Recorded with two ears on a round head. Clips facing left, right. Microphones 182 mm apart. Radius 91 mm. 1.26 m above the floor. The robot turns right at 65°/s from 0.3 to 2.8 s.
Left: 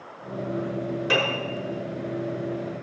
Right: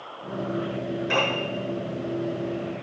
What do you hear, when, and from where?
1.1 s a piano: 70° left (ahead or behind), 6 m; by 1.4 s 85° left, 6 m